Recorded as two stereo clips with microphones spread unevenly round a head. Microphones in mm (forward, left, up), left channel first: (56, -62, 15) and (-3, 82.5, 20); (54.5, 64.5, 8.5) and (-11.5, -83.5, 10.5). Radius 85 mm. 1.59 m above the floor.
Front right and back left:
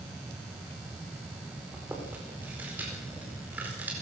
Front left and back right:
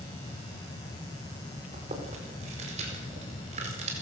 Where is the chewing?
170° right, 4.5 m.